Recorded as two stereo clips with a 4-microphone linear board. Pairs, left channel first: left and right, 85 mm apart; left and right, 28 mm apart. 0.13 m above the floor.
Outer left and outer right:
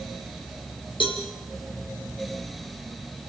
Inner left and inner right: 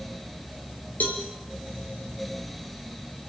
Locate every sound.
1.0 s a cowbell: 75° left (ahead or behind), 4.5 m